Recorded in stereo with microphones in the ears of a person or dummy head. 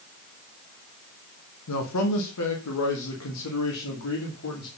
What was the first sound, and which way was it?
A man speaking, 70° left (ahead or behind).